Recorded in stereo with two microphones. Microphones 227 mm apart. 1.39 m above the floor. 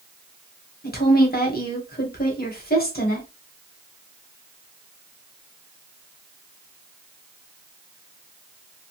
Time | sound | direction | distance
0.8 | a woman speaking | 45° left (ahead or behind) | 1.1 m